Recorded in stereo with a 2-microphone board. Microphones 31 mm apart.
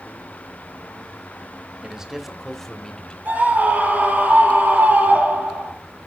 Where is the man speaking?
25° right (ahead or behind), 1.4 m; by 3.1 s 30° left (ahead or behind), 1.6 m.